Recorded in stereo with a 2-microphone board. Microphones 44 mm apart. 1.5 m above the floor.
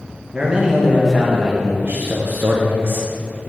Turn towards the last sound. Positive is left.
turn(degrees=-50)  # may be behind; listen again after turning